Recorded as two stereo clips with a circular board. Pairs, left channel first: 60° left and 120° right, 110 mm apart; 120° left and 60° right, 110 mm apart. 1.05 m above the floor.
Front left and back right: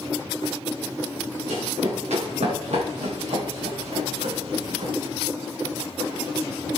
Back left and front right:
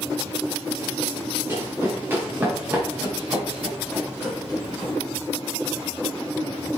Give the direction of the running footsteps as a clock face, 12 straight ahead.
4 o'clock.